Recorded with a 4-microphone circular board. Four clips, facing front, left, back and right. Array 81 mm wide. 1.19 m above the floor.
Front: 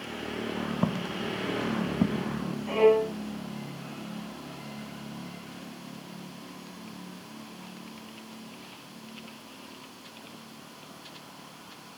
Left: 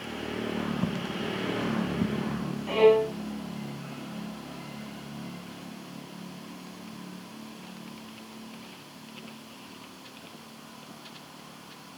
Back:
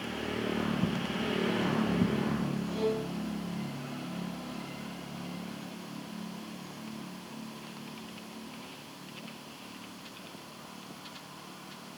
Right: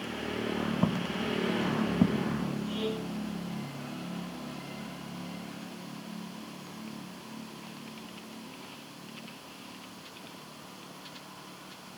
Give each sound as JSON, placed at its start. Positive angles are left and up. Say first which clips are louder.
{"t": 0.8, "sound": "footsteps", "louder": "right 1 dB, front 2 dB", "azimuth_deg": -35}
{"t": 2.7, "sound": "a violin", "louder": "left 14 dB, front 14 dB", "azimuth_deg": 55}